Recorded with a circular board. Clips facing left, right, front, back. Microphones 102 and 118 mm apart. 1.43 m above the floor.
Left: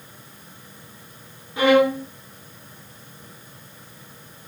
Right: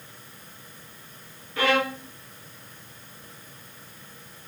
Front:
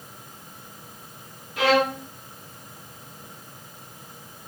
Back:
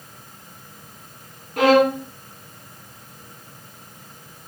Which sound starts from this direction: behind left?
A violin, at 1.6 s.